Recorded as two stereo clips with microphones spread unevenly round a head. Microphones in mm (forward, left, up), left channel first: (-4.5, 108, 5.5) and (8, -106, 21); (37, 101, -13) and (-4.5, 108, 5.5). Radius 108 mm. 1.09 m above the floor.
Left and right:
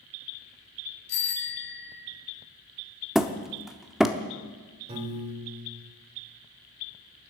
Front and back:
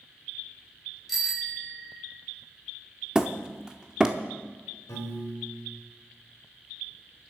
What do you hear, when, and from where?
1.1 s a bicycle bell: 90° left, 4 m
3.1 s hammering: 170° right, 0.7 m
4.9 s a piano: 25° right, 2.5 m